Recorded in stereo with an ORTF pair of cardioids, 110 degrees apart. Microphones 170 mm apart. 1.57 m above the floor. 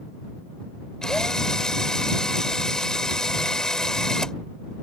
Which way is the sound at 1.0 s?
5° left.